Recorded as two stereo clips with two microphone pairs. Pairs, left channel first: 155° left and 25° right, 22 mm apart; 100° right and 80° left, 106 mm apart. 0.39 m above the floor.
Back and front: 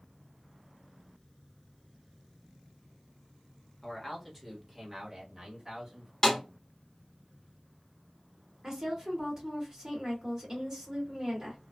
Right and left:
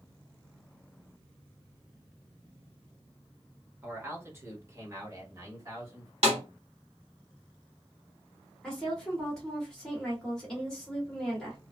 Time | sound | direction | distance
3.8 | a man speaking | 80° left | 1.0 m
6.2 | a snare drum | 85° left | 1.0 m
8.6 | a woman speaking | 20° right | 1.3 m